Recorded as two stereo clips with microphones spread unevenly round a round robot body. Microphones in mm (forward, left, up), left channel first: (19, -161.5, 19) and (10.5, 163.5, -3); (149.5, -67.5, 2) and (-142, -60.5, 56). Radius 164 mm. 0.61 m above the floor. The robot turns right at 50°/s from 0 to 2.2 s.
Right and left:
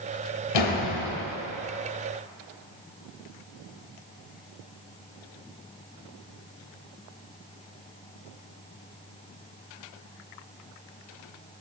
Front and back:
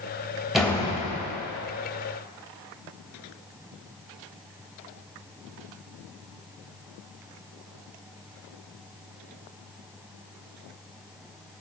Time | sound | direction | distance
0.5 | a door slam | 90° right | 2.0 m